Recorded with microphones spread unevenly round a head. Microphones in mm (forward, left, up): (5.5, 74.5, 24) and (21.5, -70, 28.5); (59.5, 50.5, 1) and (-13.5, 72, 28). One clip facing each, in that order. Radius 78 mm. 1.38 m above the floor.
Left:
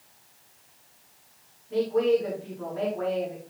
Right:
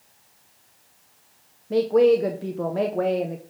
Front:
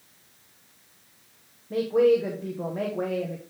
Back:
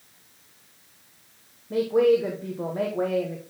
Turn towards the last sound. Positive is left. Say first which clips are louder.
# right 6 dB, back 1 dB
turn(degrees=-110)